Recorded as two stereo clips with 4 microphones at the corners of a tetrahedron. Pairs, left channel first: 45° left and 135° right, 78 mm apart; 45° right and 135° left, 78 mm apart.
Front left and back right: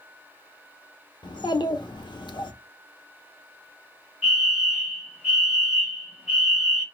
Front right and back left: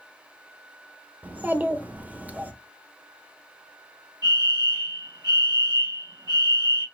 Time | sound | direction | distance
1.2 | a child speaking | 65° left | 0.9 m
4.2 | a fire alarm | 155° left | 4 m